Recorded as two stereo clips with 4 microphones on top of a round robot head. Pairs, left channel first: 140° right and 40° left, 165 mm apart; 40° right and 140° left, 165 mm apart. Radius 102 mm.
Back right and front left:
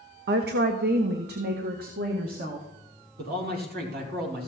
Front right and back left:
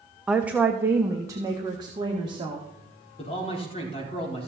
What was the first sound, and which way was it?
A woman speaking, 50° left.